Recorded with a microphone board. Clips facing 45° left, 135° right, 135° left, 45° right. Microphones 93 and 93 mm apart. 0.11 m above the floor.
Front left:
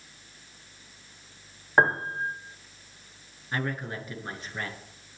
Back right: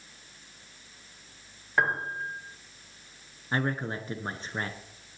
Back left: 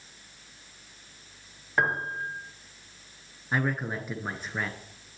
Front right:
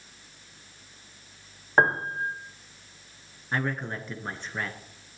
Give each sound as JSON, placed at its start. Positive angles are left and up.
{"t": 1.8, "sound": "a piano", "azimuth_deg": -5, "distance_m": 1.2}
{"t": 3.5, "sound": "a man speaking", "azimuth_deg": -150, "distance_m": 1.5}